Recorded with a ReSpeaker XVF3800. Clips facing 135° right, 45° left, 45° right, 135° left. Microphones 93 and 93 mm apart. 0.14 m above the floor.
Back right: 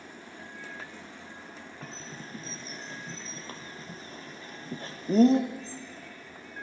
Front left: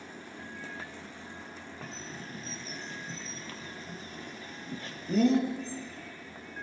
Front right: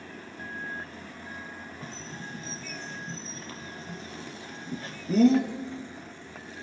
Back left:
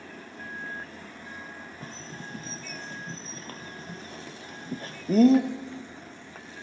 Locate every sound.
1.8 s a bird: 175° left, 3 m